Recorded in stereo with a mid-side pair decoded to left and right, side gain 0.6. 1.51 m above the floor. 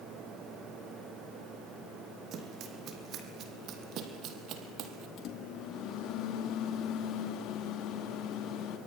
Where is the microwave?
60° left, 2.5 m.